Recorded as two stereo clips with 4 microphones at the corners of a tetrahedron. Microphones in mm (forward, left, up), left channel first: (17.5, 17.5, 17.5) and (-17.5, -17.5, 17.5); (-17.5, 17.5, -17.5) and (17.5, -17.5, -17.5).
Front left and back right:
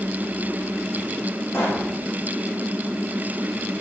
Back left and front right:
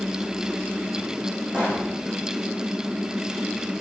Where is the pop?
25° left, 7.5 m.